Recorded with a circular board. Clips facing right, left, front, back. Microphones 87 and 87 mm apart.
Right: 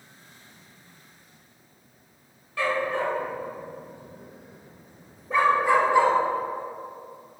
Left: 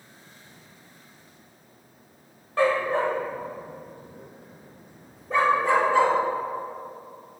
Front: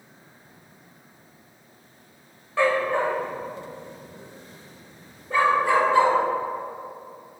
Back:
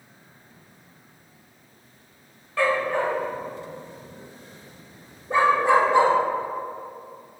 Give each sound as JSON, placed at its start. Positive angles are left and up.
{"t": 2.6, "sound": "a dog barking", "azimuth_deg": 60, "distance_m": 1.9}